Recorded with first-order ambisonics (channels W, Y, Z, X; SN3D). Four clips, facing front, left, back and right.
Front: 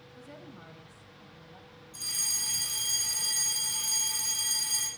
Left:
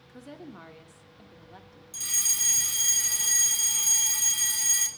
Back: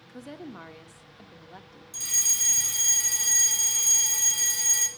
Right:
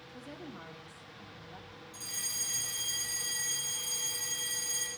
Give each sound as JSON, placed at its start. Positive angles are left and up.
{"t": 0.1, "sound": "a woman speaking", "azimuth_deg": 165, "distance_m": 1.4}
{"t": 1.9, "sound": "a fire alarm", "azimuth_deg": 135, "distance_m": 5.5}